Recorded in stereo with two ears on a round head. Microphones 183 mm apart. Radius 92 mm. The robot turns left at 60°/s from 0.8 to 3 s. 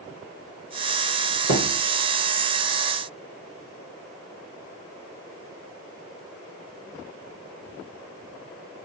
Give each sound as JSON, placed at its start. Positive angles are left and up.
{"t": 1.5, "sound": "a thud", "side_deg": -55, "distance_m": 1.6}